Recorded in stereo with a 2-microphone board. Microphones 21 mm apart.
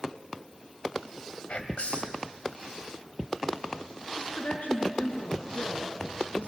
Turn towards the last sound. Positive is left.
turn(degrees=80)